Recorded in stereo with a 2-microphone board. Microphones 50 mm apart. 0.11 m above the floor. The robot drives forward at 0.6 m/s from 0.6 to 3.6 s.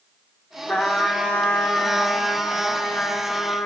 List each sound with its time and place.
0.7 s a trumpet: 25° left (ahead or behind), 2.5 m; by 3.7 s 55° left (ahead or behind), 1.3 m